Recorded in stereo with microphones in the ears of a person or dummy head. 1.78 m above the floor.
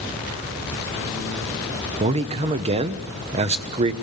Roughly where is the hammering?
No hammering in this recording.